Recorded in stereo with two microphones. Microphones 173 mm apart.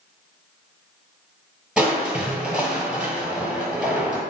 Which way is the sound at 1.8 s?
5° right (ahead or behind).